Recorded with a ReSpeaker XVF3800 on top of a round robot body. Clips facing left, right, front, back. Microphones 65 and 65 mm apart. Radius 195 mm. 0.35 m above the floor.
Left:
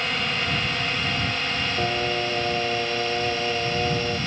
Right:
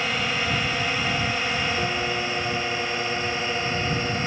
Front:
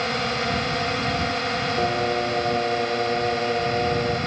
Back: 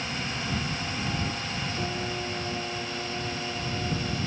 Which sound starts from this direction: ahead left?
Singing, at 1.8 s.